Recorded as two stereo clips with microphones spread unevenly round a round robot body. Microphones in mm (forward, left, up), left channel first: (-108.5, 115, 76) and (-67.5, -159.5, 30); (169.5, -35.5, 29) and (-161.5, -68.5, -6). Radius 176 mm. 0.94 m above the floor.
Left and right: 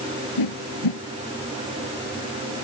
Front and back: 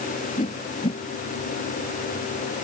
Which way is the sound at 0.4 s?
80° left.